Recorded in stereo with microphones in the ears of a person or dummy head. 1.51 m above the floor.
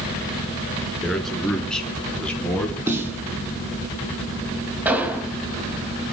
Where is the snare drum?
20° right (ahead or behind), 4 m.